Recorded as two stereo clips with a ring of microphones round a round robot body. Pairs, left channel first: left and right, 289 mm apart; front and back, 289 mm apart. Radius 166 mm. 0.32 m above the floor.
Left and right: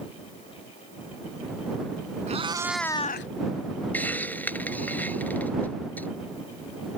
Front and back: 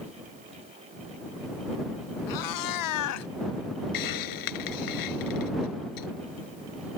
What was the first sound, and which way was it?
A cat meowing, 20° right.